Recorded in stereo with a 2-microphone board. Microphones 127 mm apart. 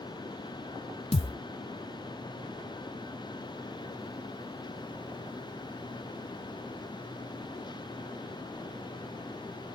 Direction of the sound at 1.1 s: 50° left (ahead or behind).